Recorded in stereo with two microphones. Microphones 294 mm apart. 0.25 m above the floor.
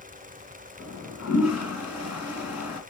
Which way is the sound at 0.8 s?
60° left (ahead or behind).